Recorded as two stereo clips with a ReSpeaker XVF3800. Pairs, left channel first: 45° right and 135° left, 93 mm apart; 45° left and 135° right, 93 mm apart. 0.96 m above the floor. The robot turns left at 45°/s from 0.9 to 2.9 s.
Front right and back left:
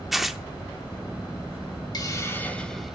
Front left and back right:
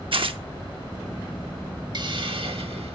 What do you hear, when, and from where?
0.1 s tearing paper: 135° right, 0.8 m
1.9 s a hiss: 95° right, 1.2 m; by 3.0 s 135° right, 1.2 m